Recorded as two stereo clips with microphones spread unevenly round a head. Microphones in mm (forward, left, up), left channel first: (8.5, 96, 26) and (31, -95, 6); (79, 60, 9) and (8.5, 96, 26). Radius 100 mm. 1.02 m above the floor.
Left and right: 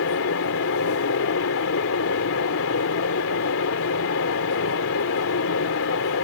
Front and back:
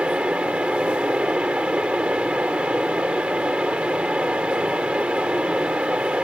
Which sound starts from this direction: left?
A fan, at 0.0 s.